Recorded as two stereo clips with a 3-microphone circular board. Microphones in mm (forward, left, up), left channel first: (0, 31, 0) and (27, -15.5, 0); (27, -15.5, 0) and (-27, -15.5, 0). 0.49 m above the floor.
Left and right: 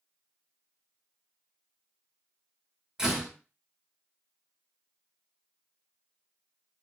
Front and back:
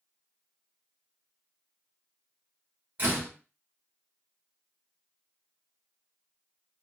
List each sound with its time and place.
3.0 s a door slam: 135° right, 1.2 m